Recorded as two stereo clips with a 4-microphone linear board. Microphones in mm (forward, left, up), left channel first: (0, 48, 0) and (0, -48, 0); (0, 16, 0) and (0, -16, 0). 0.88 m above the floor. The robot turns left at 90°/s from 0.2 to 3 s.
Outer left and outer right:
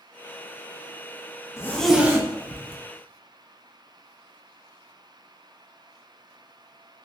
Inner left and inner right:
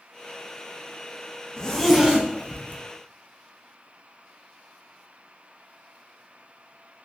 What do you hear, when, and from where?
1.6 s a zipper: 30° left (ahead or behind), 0.5 m; by 2.8 s 75° right (ahead or behind), 0.5 m